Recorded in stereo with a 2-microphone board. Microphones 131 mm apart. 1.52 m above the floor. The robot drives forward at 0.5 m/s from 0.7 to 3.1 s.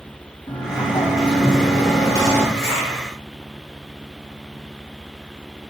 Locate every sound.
0.5 s a sliding door: 35° left (ahead or behind), 1.8 m; by 2.4 s 25° left (ahead or behind), 2.5 m
2.5 s a zipper: 55° left (ahead or behind), 3 m; by 3.0 s 50° left (ahead or behind), 3.5 m